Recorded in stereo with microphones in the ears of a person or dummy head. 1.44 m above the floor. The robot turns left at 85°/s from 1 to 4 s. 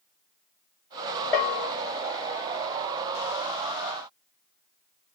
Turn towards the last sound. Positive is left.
turn(degrees=-60)